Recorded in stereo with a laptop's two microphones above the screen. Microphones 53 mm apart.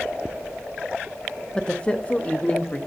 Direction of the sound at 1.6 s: 15° left (ahead or behind).